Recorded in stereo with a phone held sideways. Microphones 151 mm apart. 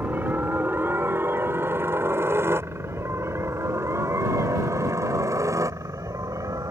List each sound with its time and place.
0.0 s a helicopter: 10° right (ahead or behind); by 6.7 s 20° right (ahead or behind)